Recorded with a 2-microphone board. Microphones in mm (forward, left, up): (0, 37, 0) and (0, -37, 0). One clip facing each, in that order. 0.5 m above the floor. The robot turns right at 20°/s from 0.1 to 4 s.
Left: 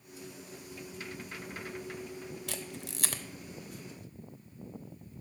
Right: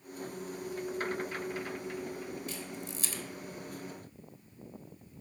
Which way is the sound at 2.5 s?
75° left (ahead or behind).